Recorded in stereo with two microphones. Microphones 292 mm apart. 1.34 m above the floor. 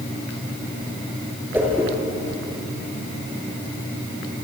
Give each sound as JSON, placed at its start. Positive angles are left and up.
{"t": 1.5, "sound": "a whoosh", "side_deg": -5, "distance_m": 5.5}